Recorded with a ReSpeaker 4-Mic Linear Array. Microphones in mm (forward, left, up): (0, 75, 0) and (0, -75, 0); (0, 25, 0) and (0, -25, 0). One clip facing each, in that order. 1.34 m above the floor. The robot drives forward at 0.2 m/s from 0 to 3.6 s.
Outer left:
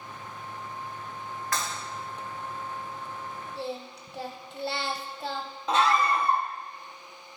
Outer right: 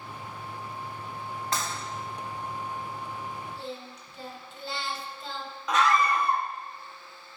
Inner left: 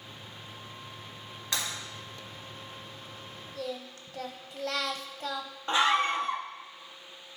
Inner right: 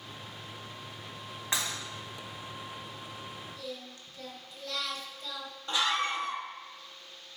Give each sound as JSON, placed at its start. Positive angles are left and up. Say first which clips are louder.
{"t": 1.5, "sound": "breaking glass", "louder": "even, inner right 1 dB", "side_deg": -30, "distance_m": 2.5}
{"t": 3.5, "sound": "singing", "louder": "outer left 4 dB, inner left 5 dB", "side_deg": 70, "distance_m": 0.8}
{"t": 5.7, "sound": "a scream", "louder": "even, inner left 5 dB", "side_deg": 30, "distance_m": 0.9}